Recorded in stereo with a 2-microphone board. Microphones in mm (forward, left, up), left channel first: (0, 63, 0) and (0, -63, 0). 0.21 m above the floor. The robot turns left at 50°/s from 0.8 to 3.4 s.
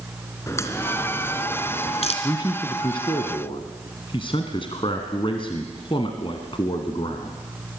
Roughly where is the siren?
No siren in this recording.